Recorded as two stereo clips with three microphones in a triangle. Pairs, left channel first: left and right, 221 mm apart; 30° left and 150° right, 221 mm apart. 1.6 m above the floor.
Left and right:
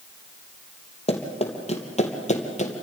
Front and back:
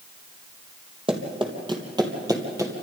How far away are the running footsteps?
About 3 m.